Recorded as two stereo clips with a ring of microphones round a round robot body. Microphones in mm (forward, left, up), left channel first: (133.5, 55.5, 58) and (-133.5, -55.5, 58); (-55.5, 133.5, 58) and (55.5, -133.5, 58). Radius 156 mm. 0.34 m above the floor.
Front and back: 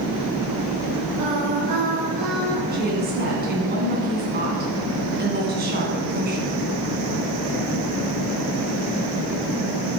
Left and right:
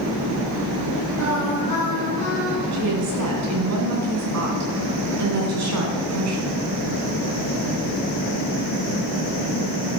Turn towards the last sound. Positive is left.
turn(degrees=-100)